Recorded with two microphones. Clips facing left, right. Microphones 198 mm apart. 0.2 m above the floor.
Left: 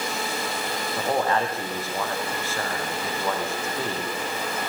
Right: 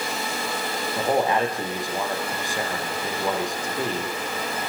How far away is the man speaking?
About 8 m.